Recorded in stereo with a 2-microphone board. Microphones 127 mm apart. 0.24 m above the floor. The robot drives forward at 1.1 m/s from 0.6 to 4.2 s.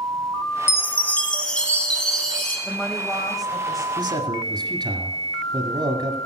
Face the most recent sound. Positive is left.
turn(degrees=-35)  # may be behind; listen again after turning